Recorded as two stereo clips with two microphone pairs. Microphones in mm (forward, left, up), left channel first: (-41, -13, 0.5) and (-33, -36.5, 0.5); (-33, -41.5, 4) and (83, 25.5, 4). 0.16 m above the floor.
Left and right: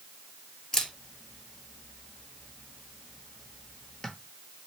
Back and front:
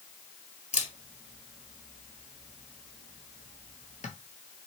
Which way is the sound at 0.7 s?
175° right.